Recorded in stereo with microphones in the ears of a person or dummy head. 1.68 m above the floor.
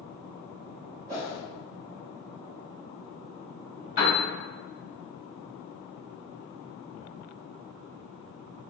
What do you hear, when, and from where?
1.1 s a whoosh: 15° right (ahead or behind), 1.2 m
4.0 s a piano: 35° left (ahead or behind), 1.6 m